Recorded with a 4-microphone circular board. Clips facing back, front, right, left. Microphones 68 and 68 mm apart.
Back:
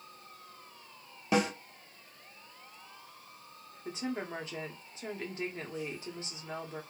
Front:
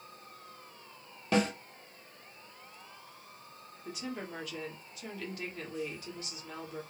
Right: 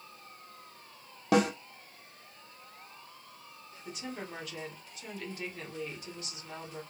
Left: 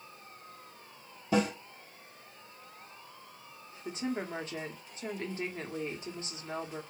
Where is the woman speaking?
130° left, 0.7 m.